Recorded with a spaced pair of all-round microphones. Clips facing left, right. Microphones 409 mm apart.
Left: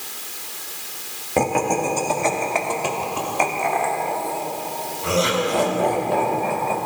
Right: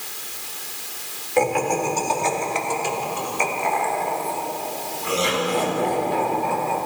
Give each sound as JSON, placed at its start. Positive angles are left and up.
{"t": 1.4, "sound": "laughter", "side_deg": 60, "distance_m": 2.0}